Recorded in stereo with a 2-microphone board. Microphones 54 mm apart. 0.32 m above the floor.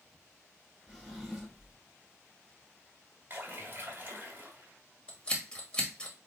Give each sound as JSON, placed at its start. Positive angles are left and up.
{"t": 0.9, "sound": "a drawer", "side_deg": 5, "distance_m": 2.5}
{"t": 3.3, "sound": "a splash", "side_deg": -35, "distance_m": 1.8}
{"t": 5.1, "sound": "scissors", "side_deg": 20, "distance_m": 1.5}